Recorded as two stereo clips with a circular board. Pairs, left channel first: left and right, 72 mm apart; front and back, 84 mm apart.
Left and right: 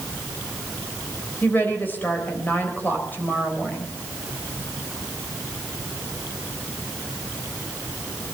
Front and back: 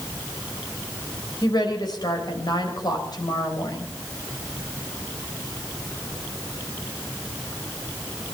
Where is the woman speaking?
30° left, 4 m.